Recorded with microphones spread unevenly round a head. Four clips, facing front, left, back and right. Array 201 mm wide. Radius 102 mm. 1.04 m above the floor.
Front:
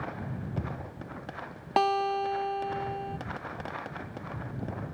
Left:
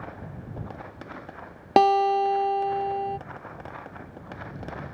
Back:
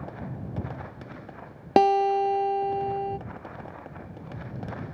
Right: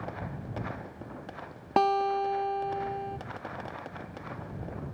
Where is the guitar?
150° left.